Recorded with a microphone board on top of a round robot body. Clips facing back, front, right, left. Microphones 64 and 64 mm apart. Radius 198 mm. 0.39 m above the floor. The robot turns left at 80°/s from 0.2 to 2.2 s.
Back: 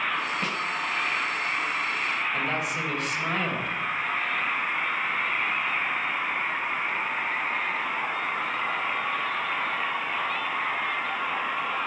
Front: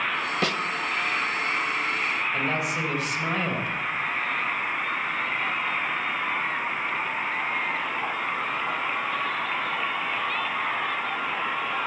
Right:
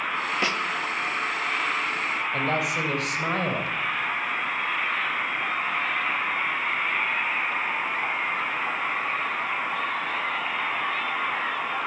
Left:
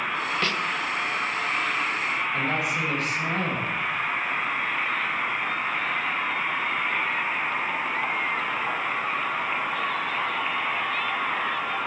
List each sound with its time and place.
0.4 s a snare drum: 15° right, 0.8 m; by 0.6 s 30° right, 0.8 m
2.3 s a woman speaking: 85° right, 3 m